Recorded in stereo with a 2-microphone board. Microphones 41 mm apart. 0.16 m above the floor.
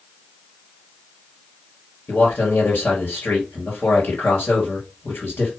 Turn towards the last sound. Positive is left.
turn(degrees=60)  # may be behind; listen again after turning